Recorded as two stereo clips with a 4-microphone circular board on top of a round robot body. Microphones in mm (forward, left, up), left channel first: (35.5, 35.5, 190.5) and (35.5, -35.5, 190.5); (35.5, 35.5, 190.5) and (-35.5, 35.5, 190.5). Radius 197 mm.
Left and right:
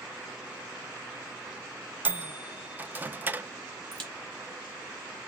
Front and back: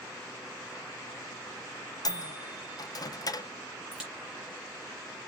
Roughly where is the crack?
Right.